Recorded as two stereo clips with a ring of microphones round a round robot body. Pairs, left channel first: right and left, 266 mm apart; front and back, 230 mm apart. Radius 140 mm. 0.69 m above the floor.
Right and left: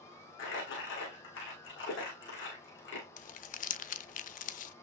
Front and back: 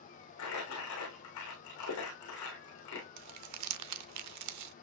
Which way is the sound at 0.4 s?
40° right.